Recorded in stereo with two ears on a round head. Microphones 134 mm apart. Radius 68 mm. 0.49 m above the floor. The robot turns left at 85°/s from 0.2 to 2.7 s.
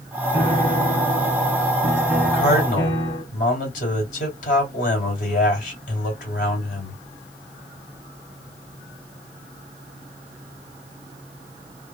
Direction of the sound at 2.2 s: 135° left.